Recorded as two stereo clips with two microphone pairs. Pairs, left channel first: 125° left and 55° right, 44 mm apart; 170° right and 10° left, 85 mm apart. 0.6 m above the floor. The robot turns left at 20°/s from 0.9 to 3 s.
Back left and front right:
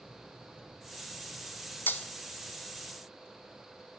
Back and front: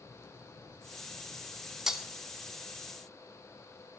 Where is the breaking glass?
95° left, 0.7 m; by 2.0 s 90° left, 0.7 m.